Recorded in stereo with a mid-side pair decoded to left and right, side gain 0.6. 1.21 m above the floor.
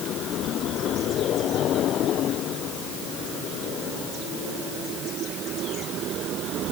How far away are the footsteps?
I don't hear footsteps.